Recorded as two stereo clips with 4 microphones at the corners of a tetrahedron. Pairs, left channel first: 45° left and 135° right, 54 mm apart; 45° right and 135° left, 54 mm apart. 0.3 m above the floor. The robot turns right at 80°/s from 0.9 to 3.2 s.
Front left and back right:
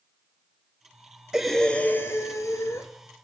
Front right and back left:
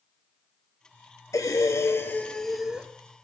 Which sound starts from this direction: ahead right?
Breathing, at 1.3 s.